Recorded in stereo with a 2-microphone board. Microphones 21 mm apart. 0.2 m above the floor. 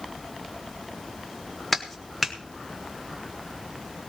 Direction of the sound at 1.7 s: 15° left (ahead or behind).